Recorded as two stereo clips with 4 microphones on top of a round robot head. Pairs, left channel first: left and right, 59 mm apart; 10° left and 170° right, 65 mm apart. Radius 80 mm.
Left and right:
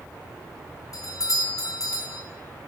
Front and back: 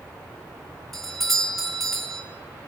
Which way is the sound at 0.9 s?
90° left.